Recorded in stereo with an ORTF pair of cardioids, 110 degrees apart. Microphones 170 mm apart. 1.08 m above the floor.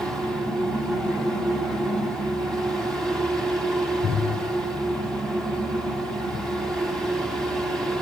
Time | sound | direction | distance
0.0 | a fan | straight ahead | 2.0 m